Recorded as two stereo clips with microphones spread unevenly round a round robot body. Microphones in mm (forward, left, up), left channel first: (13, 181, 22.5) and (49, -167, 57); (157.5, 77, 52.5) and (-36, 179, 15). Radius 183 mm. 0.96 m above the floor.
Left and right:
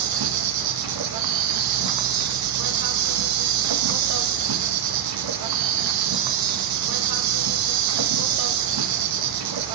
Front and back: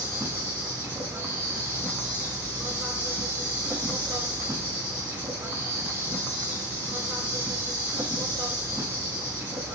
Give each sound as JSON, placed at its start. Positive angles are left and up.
{"t": 0.0, "sound": "an insect", "azimuth_deg": -125, "distance_m": 0.7}